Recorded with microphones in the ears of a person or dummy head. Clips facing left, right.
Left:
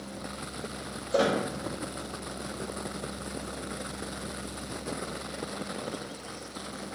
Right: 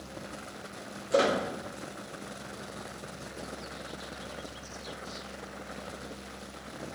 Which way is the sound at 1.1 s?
40° right (ahead or behind).